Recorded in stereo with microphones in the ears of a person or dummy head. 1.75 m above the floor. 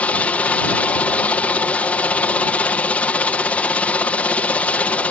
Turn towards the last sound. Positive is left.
turn(degrees=10)  # may be behind; listen again after turning